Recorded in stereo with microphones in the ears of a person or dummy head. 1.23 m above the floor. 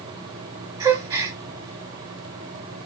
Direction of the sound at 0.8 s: 20° right (ahead or behind).